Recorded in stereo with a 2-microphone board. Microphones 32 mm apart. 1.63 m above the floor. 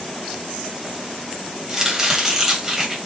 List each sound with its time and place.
1.7 s chopping: 15° right (ahead or behind), 1.4 m